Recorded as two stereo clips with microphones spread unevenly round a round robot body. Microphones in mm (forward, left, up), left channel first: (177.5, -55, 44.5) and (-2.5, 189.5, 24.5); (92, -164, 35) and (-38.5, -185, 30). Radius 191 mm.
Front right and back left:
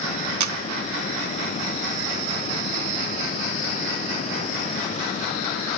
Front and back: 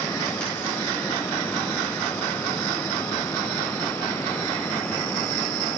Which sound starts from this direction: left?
A camera shutter, at 0.4 s.